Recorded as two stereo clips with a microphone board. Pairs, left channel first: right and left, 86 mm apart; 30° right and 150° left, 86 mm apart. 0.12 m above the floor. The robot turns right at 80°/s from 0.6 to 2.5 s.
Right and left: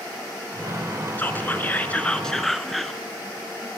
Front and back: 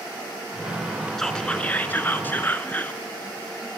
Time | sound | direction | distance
1.2 | whispering | 110° right | 1.5 m